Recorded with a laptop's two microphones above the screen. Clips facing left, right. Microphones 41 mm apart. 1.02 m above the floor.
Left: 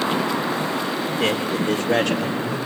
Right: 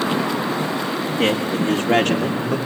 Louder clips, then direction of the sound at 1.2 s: Right 3 dB; 55° right (ahead or behind).